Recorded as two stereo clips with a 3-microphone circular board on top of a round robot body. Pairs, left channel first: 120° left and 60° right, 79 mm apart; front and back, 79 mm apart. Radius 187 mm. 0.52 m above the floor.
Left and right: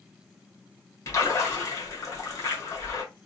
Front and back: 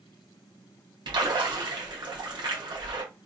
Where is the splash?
170° left, 1.6 m.